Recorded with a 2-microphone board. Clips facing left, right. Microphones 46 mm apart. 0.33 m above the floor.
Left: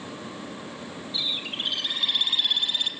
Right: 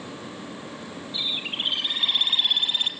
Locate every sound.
1.1 s a bird: 25° right (ahead or behind), 3 m